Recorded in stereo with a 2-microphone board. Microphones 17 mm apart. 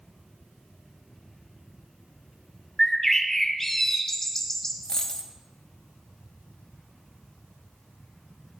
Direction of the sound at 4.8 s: 45° left (ahead or behind).